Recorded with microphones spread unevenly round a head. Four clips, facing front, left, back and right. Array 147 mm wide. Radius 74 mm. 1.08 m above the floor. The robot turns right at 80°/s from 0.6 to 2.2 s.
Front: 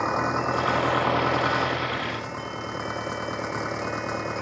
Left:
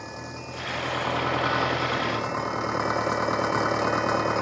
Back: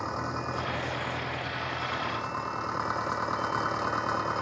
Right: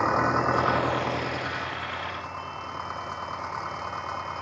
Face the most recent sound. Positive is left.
turn(degrees=80)